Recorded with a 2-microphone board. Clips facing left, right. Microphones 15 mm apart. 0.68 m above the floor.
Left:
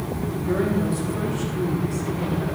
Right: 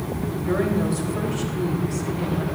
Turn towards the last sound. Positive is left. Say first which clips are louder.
# even
turn(degrees=-20)  # may be behind; listen again after turning